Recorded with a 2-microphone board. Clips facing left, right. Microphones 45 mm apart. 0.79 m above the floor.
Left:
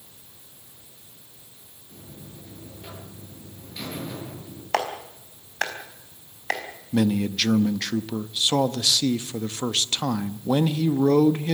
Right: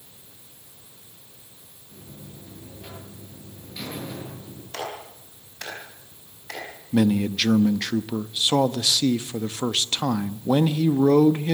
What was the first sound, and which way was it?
A buzzer, 5° left (ahead or behind).